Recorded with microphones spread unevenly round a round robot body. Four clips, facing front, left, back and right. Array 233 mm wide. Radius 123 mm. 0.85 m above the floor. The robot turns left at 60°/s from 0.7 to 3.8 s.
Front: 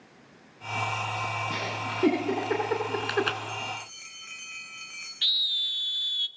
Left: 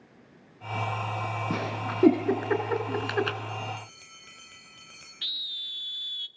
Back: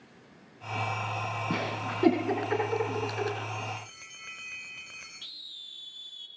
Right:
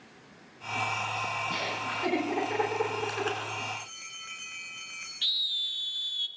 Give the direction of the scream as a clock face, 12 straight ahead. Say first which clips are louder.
Right 1 dB, front 15 dB; 10 o'clock.